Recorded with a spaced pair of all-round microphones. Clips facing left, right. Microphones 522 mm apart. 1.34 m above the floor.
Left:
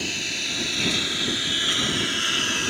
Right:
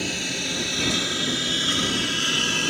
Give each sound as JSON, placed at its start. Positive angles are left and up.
{"t": 0.0, "sound": "a lawn mower", "side_deg": -75}